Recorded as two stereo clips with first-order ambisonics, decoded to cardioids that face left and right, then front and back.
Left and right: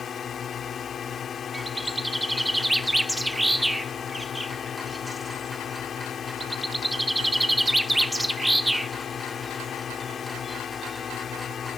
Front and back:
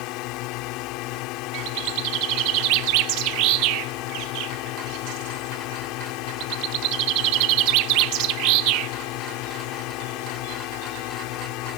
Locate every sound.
0.0 s a drone: 25° left
1.5 s a bird: straight behind